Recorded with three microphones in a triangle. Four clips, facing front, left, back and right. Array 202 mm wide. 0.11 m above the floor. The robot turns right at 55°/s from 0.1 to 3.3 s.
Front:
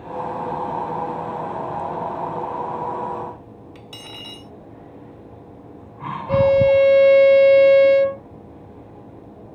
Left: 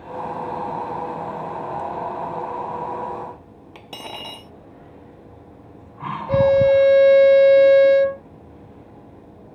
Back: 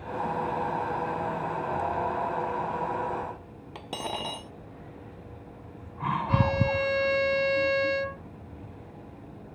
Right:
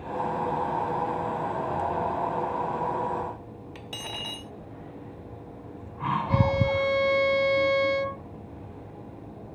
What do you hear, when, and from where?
3.8 s cutlery clinking: 155° left
6.3 s a violin: 45° left